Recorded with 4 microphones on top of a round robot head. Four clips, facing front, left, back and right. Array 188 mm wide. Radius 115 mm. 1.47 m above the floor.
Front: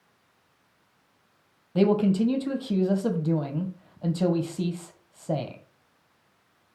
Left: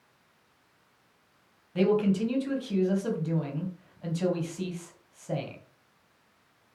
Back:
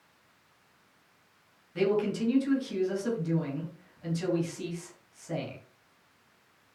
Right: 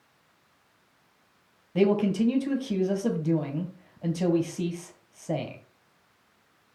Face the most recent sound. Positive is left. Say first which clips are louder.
# right 2 dB, front 6 dB
turn(degrees=-35)